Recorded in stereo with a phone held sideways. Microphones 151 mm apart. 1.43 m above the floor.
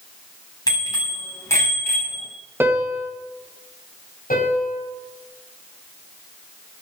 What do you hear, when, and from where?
0.7 s a bicycle bell: 25° left (ahead or behind), 8 m; by 2.3 s 10° left (ahead or behind), 7 m
2.6 s a piano: 15° right (ahead or behind), 1.9 m
4.3 s a piano: 65° left (ahead or behind), 7 m